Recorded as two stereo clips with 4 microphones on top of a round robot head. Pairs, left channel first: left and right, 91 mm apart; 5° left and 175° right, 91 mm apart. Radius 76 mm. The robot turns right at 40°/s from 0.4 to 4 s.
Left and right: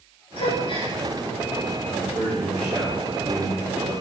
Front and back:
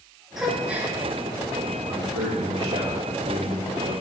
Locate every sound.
0.4 s a gasp: 100° left, 1.8 m; by 0.9 s 120° left, 1.8 m
1.9 s a man speaking: 155° left, 1.9 m; by 3.9 s 125° right, 1.9 m